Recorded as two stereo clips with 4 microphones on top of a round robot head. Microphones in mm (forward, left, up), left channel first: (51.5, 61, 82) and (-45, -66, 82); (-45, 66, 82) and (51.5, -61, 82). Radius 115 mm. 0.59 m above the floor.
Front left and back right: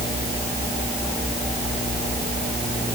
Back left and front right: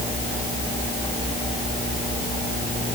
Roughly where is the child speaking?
I don't hear a child speaking.